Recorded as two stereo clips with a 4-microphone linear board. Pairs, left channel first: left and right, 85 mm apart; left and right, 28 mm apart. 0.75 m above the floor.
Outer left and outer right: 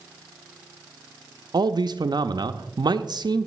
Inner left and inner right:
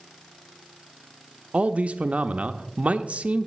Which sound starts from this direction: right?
A man speaking, at 1.5 s.